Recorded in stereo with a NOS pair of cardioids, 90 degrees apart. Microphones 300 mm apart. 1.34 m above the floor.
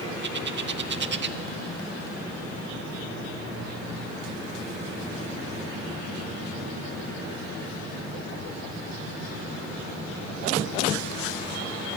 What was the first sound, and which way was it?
A bird, 40° right.